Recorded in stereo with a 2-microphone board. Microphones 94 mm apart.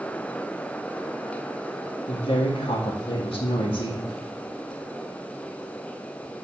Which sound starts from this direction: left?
A woman speaking, at 2.1 s.